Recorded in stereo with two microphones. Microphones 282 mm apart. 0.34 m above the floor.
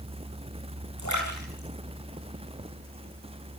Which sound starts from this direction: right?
A splash, at 1.0 s.